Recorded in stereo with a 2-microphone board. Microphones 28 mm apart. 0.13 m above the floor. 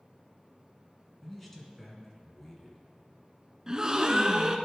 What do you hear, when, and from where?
1.2 s a man speaking: 10° left (ahead or behind), 1.4 m
3.7 s a gasp: 25° right (ahead or behind), 0.5 m